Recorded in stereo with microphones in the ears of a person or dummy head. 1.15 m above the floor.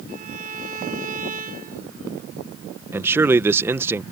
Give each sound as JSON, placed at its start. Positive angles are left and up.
{"t": 0.1, "sound": "a violin", "side_deg": -45}
{"t": 2.9, "sound": "a man speaking", "side_deg": -10}